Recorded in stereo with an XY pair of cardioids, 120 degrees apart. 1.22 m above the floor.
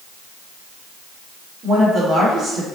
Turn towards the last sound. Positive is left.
turn(degrees=-40)